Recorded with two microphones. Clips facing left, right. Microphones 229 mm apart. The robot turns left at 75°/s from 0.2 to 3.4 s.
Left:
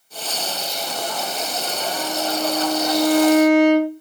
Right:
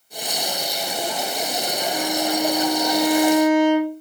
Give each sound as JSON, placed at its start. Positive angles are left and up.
{"t": 1.9, "sound": "a violin", "azimuth_deg": -155, "distance_m": 2.0}